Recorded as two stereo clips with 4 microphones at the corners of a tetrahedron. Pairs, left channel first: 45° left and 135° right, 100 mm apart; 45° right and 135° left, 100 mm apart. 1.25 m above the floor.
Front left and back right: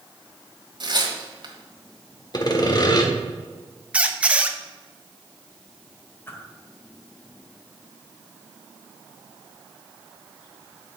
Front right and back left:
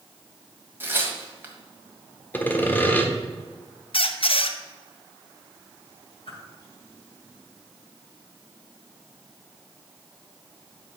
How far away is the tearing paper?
About 1.6 m.